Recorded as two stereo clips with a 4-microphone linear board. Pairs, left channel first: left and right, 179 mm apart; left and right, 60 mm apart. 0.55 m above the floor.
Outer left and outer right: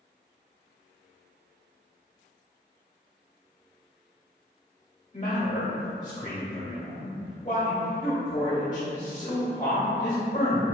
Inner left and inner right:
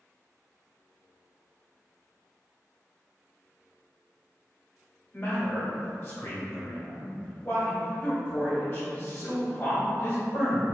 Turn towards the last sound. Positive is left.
turn(degrees=45)  # may be behind; listen again after turning